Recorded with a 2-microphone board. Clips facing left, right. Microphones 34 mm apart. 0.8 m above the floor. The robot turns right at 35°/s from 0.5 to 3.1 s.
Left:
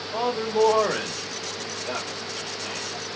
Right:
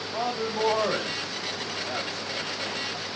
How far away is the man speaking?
About 1.1 m.